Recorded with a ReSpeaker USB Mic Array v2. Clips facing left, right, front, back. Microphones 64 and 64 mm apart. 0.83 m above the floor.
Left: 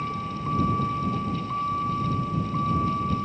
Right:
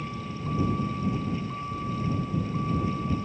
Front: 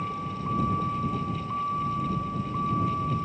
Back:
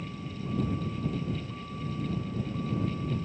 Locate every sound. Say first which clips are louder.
0.0 s a vehicle: left 5 dB, front 7 dB; 35° left